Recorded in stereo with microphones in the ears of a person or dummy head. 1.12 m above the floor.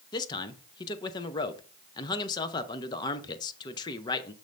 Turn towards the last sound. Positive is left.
turn(degrees=20)  # may be behind; listen again after turning